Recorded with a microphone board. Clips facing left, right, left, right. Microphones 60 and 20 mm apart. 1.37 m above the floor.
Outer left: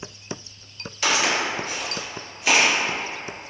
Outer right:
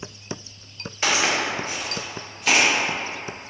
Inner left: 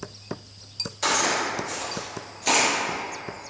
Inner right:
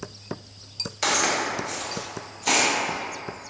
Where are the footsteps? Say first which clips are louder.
Even, even; 25° right (ahead or behind), 1.5 m; by 2.7 s 15° left (ahead or behind), 1.4 m.